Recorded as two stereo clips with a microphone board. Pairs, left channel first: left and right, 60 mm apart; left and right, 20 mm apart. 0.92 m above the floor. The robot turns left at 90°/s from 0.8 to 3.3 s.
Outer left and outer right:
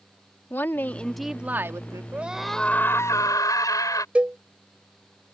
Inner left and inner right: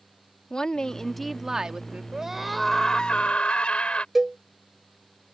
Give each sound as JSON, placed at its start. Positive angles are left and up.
{"t": 0.5, "sound": "a woman speaking", "azimuth_deg": 35}
{"t": 2.1, "sound": "a scream", "azimuth_deg": -150}
{"t": 4.2, "sound": "a cowbell", "side_deg": -20}